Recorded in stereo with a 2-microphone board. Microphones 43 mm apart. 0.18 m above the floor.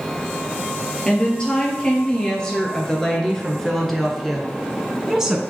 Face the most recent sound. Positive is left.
turn(degrees=-15)  # may be behind; listen again after turning